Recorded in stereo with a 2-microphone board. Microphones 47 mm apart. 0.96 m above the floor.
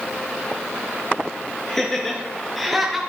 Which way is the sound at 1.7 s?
10° left (ahead or behind).